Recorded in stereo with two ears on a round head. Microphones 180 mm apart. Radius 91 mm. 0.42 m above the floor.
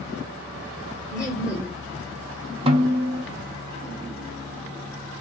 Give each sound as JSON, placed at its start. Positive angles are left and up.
{"t": 1.1, "sound": "laughter", "side_deg": -5, "distance_m": 2.0}
{"t": 2.7, "sound": "a snare drum", "side_deg": -30, "distance_m": 0.6}